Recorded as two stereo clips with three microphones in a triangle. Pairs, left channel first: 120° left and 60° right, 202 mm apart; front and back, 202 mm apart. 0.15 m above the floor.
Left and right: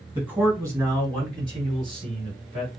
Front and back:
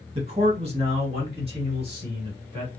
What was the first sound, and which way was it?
A man speaking, 140° right.